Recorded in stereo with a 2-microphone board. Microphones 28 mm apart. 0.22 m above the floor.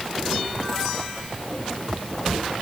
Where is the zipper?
I don't hear a zipper.